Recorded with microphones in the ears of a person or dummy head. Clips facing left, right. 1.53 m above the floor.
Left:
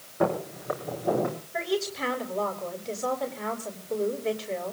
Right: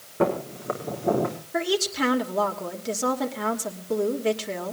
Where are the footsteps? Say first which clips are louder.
Right 2 dB; 50° right (ahead or behind), 6 m; by 1.4 s 40° right (ahead or behind), 4.5 m.